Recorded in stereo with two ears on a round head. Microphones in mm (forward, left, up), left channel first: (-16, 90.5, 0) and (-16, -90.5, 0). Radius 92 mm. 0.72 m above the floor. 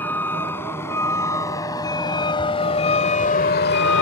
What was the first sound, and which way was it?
A vehicle, 10° left (ahead or behind).